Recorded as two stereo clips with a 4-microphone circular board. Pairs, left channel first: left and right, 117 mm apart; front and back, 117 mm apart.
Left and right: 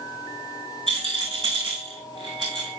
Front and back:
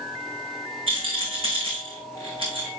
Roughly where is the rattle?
Behind right.